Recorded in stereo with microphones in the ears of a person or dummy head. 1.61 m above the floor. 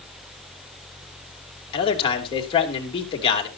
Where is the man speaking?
30° left (ahead or behind), 3 m.